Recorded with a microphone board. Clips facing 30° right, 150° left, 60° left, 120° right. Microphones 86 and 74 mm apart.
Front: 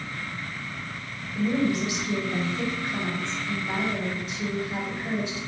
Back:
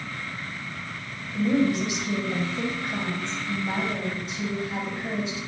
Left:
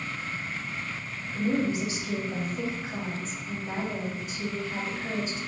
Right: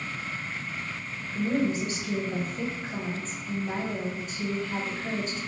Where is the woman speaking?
145° left, 2 m.